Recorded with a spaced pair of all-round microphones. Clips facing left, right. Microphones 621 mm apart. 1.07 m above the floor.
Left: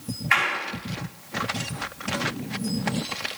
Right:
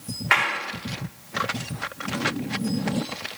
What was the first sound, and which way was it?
A clap, 85° right.